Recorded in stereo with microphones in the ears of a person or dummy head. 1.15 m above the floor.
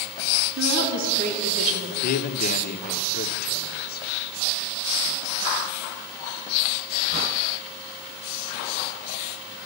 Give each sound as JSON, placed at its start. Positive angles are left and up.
{"t": 0.6, "sound": "a woman speaking", "side_deg": -55, "distance_m": 2.5}
{"t": 2.0, "sound": "a man speaking", "side_deg": 50, "distance_m": 0.7}